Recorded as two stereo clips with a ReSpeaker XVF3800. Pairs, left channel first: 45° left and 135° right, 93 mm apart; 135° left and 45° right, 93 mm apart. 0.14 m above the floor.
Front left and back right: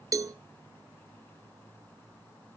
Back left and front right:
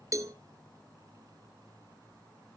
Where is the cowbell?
90° right, 0.7 m.